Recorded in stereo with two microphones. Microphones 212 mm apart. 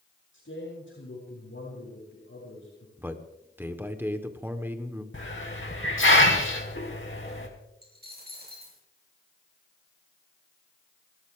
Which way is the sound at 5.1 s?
70° left (ahead or behind).